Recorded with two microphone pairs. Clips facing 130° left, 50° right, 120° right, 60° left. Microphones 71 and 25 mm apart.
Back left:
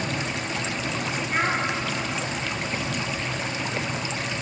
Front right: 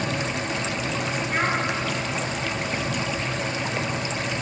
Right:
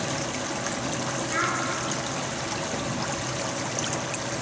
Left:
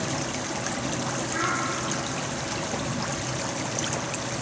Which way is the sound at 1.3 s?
150° right.